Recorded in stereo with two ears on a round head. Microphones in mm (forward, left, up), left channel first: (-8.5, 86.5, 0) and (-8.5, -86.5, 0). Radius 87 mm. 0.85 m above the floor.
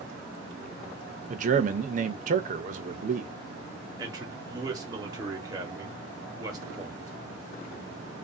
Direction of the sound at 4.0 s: 20° right (ahead or behind).